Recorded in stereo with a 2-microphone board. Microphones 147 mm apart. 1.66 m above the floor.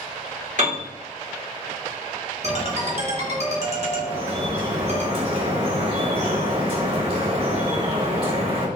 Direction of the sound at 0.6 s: 65° right (ahead or behind).